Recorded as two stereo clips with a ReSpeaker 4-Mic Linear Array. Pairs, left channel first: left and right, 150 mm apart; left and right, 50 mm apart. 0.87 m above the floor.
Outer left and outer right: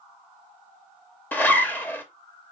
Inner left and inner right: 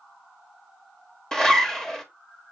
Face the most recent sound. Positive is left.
turn(degrees=15)  # may be behind; listen again after turning